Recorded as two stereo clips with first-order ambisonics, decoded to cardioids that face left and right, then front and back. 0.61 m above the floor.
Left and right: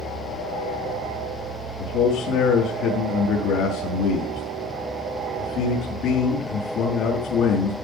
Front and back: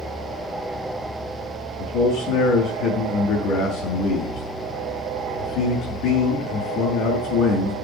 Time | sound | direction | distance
1.8 | a man speaking | 40° left | 6 m